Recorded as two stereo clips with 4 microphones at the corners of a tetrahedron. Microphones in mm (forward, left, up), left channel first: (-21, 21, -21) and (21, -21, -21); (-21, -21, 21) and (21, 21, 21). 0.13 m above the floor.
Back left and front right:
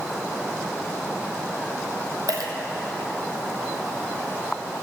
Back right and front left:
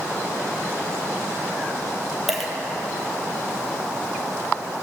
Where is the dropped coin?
40° right, 1.3 m.